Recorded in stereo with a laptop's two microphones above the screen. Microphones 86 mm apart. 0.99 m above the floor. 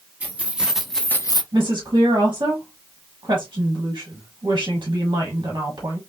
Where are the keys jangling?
15° right (ahead or behind), 1.6 m; by 1.4 s 60° left (ahead or behind), 0.5 m.